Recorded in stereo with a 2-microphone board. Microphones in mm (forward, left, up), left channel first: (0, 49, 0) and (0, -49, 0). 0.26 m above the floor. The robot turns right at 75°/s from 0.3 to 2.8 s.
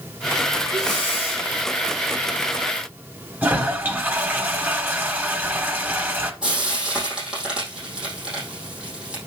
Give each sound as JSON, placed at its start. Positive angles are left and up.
{"t": 0.7, "sound": "breathing", "azimuth_deg": 30, "distance_m": 4.5}
{"t": 3.4, "sound": "a toilet flushing", "side_deg": -20, "distance_m": 0.9}
{"t": 6.4, "sound": "frying", "side_deg": -10, "distance_m": 4.5}